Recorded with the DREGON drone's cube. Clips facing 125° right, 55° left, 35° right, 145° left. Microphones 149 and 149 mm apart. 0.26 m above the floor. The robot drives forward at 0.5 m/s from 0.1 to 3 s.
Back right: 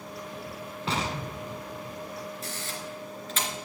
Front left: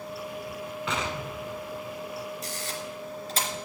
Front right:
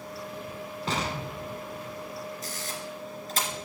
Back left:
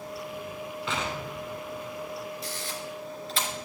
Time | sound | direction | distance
0.9 | an explosion | 75° right | 1.2 m
2.4 | a camera shutter | 5° left | 2.5 m